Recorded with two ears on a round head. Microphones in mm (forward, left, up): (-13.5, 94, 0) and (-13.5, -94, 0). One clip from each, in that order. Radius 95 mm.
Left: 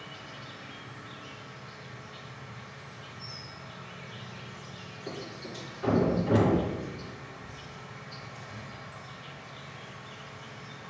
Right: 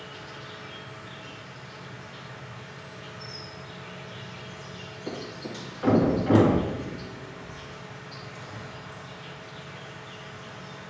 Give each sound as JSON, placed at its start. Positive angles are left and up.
{"t": 0.0, "sound": "an insect", "side_deg": -15, "distance_m": 1.6}
{"t": 5.1, "sound": "a thud", "side_deg": -50, "distance_m": 3.5}